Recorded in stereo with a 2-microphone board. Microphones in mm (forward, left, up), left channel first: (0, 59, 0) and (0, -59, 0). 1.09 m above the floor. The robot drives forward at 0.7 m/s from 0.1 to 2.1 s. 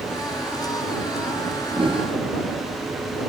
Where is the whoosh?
40° right (ahead or behind), 1.0 m; by 2.1 s 50° right (ahead or behind), 0.8 m.